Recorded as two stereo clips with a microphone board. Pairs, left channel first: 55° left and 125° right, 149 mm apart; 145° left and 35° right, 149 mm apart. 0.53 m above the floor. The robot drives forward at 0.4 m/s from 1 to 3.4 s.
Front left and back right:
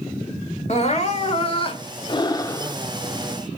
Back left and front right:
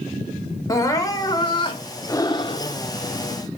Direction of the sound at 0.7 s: 85° left.